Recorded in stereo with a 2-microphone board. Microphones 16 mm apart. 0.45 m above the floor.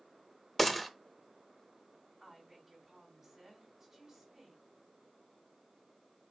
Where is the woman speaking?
25° right (ahead or behind), 2.5 m.